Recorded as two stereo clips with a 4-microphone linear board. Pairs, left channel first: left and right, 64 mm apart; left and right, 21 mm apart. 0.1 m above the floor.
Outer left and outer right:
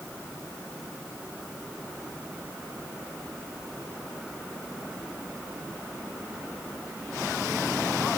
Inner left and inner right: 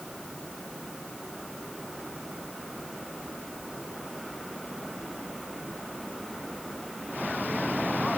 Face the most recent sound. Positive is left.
No sound to turn to.